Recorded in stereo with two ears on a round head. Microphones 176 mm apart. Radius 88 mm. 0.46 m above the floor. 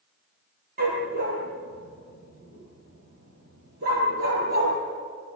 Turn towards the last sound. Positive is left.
turn(degrees=-50)  # may be behind; listen again after turning